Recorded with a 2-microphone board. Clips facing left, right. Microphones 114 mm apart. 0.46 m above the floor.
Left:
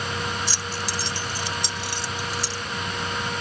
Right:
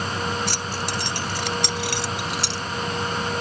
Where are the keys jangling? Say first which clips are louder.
Right 3 dB; 60° right (ahead or behind); by 2.6 s 75° right (ahead or behind).